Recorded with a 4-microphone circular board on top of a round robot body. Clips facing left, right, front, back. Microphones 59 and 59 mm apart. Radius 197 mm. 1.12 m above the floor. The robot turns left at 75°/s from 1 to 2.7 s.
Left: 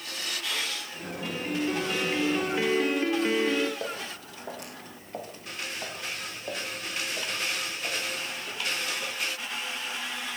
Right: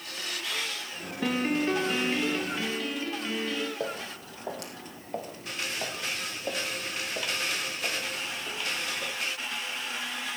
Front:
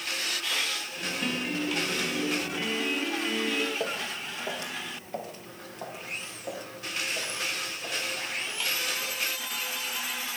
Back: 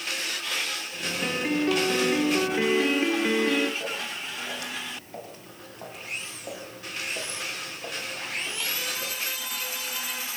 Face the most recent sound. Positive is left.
turn(degrees=-125)